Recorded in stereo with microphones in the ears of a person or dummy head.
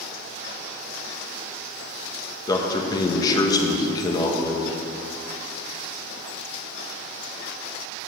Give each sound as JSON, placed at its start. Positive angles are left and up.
{"t": 2.5, "sound": "a man speaking", "side_deg": 25, "distance_m": 1.3}